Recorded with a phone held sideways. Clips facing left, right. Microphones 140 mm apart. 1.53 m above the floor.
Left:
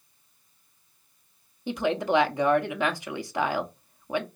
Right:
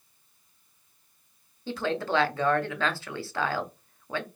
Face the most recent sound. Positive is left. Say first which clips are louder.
# left 3 dB
turn(degrees=15)  # may be behind; listen again after turning